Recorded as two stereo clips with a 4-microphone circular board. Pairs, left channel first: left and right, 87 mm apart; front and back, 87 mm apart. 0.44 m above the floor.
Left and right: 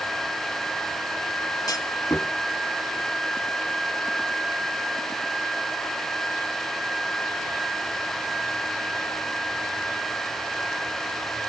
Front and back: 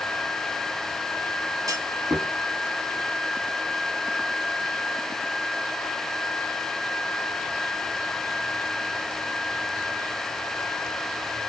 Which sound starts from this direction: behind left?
A clunk, at 1.7 s.